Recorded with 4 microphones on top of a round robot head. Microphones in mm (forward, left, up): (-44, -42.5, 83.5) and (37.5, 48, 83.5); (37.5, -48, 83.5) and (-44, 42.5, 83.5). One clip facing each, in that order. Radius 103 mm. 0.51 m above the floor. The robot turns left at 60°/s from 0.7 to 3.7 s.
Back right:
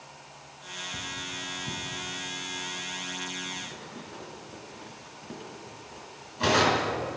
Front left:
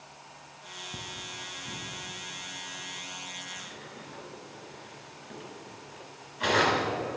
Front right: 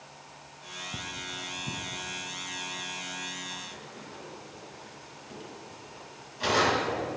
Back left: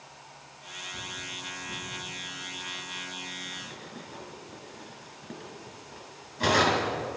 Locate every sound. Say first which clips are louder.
0.9 s cutlery clinking: back right 3 dB, front right 2 dB; 20° right, 2.5 m; by 7.2 s 175° left, 2.5 m